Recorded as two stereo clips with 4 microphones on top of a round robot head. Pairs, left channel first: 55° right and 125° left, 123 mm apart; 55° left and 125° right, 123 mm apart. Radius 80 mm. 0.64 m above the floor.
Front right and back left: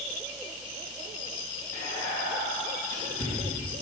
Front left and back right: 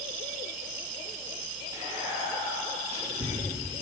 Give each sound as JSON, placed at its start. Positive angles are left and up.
{"t": 1.7, "sound": "whispering", "azimuth_deg": -70, "distance_m": 3.0}